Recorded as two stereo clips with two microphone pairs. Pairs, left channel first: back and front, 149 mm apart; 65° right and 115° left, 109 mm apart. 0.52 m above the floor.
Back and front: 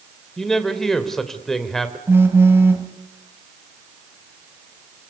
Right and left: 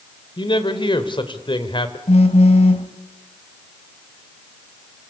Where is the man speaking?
95° right, 2.5 m.